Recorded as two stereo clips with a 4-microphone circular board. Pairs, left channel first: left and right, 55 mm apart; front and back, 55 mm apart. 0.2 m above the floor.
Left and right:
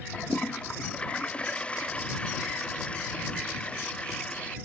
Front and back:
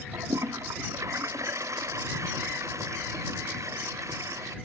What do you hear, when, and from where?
0.1 s a toilet flushing: 160° left